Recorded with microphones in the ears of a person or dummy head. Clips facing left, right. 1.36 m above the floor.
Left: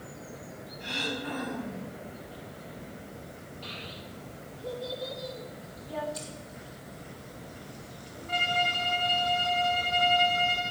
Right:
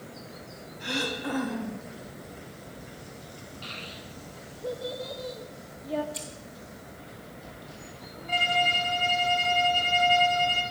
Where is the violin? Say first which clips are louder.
Right 3 dB; 45° right (ahead or behind), 1.6 m.